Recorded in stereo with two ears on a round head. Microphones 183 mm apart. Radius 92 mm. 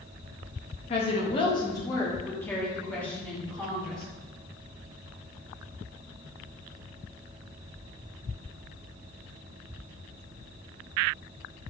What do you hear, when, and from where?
0.9 s a woman speaking: 30° left (ahead or behind), 0.7 m; by 4.0 s 5° left (ahead or behind), 2 m